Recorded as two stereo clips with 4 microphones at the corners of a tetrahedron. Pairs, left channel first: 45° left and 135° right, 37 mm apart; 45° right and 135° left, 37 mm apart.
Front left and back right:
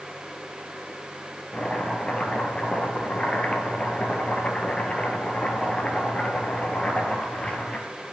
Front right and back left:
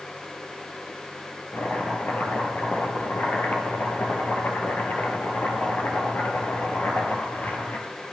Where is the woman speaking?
No woman speaking in this recording.